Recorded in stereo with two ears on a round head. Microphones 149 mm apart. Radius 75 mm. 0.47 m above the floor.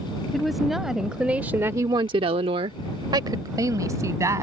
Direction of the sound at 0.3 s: Centre (ahead or behind).